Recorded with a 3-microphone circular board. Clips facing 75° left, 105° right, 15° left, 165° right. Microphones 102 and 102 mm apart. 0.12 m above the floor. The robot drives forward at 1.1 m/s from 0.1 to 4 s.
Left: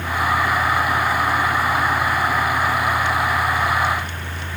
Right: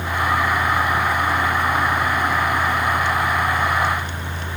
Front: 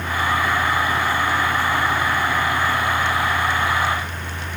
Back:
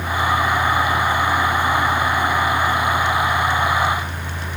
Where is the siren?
No siren in this recording.